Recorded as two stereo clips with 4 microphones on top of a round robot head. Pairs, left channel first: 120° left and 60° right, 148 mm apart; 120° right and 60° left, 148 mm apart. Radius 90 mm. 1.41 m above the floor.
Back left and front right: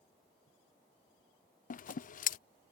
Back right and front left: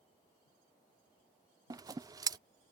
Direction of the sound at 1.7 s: 120° left.